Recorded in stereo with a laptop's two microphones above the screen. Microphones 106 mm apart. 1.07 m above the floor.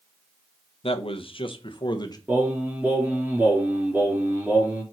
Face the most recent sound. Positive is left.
turn(degrees=-20)  # may be behind; listen again after turning